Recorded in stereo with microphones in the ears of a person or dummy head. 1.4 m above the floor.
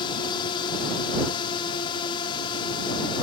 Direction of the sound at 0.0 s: 25° left (ahead or behind).